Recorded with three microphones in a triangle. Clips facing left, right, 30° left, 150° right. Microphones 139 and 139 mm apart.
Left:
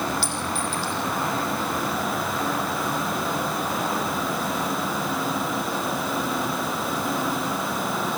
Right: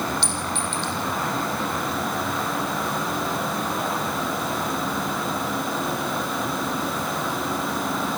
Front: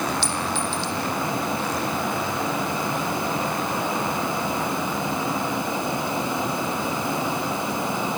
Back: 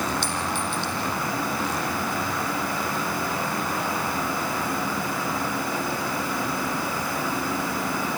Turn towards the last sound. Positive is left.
turn(degrees=175)